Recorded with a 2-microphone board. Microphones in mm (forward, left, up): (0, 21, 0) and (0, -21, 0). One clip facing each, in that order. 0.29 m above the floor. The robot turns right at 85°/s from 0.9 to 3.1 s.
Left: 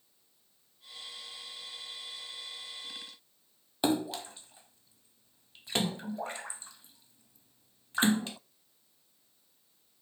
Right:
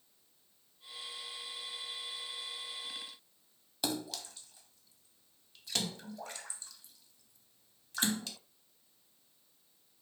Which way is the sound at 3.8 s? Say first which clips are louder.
Left 8 dB; 30° left (ahead or behind).